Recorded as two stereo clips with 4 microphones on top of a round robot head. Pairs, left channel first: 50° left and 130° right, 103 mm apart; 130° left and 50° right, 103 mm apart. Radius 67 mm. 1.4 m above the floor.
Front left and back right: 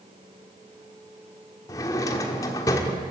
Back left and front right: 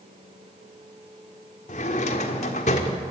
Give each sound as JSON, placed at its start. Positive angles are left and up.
{"t": 1.7, "sound": "a drawer", "azimuth_deg": 110, "distance_m": 1.6}